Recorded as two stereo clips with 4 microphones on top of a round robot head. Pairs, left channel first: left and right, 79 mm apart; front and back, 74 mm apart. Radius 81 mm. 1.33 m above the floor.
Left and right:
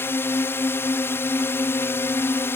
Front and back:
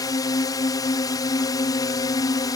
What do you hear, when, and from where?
0.0 s a drone: 30° left